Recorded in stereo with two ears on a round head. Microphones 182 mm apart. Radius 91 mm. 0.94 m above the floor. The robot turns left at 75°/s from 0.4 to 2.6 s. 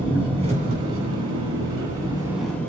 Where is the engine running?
25° right, 5 m; by 2.7 s 170° left, 5 m.